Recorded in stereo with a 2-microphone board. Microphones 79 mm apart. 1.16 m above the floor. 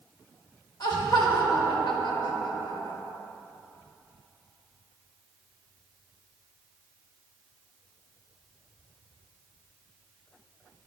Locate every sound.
0.8 s laughter: 65° left (ahead or behind), 1.6 m